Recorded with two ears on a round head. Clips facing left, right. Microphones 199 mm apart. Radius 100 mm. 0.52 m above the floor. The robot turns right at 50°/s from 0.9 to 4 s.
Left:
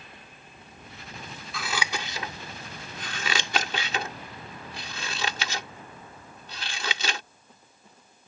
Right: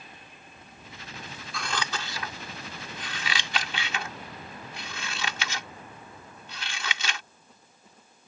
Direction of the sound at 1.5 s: Centre (ahead or behind).